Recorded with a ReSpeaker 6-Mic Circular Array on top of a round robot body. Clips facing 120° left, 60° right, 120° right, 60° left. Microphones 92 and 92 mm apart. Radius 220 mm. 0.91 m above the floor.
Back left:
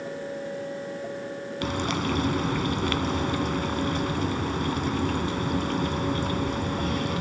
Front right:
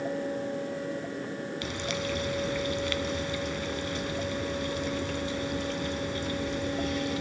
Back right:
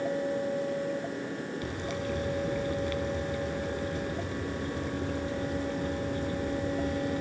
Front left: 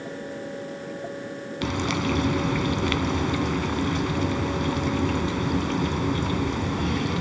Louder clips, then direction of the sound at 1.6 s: Back left 9 dB, front left 13 dB; 75° left.